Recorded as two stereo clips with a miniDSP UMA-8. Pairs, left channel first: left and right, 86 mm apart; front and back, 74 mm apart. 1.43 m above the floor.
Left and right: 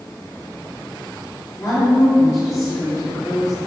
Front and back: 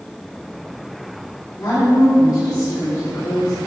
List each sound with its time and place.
1.6 s a woman speaking: 40° left, 3 m